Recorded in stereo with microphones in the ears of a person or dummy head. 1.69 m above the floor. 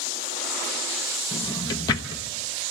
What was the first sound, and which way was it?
A drawer, 20° left (ahead or behind).